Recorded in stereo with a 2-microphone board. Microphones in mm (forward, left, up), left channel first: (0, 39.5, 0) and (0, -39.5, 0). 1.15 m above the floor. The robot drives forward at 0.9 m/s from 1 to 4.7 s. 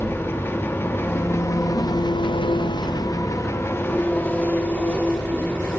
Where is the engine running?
30° left (ahead or behind), 1.5 m; by 5.8 s 20° left (ahead or behind), 2 m.